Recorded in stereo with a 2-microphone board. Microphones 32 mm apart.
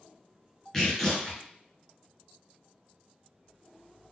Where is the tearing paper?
15° left (ahead or behind), 1.8 m.